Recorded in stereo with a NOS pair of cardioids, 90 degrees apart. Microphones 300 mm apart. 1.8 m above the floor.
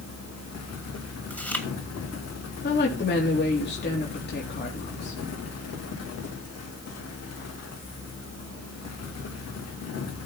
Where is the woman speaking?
35° left, 3.5 m.